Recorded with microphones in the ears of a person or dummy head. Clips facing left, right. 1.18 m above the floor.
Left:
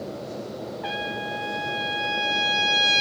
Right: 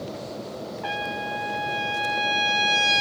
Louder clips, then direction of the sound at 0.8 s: Right 2 dB; centre (ahead or behind).